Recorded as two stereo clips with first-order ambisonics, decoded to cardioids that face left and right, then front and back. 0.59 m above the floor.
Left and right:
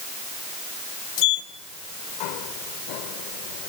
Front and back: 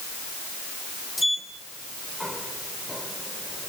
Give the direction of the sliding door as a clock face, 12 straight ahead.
9 o'clock.